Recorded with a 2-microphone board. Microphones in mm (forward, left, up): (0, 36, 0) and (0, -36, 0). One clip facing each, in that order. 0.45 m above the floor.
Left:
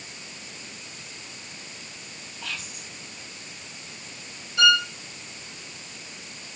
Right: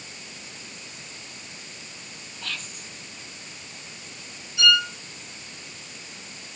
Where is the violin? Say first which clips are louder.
Left 2 dB; 55° left (ahead or behind), 2.0 m.